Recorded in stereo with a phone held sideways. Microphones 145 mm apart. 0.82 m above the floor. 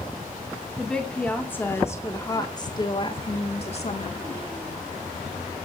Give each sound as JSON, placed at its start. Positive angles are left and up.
{"t": 0.8, "sound": "a woman speaking", "side_deg": 5, "distance_m": 2.5}